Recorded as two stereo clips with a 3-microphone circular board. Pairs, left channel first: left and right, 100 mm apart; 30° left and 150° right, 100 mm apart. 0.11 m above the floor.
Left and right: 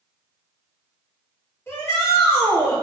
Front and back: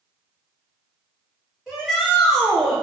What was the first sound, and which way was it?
A shout, 120° left.